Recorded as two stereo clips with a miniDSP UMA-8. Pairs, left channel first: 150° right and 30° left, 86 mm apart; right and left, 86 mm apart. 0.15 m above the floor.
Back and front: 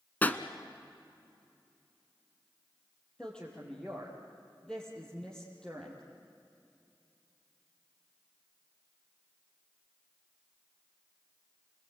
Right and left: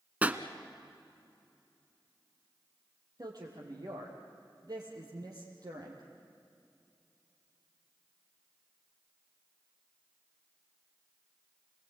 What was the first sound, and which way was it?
A pop, 150° left.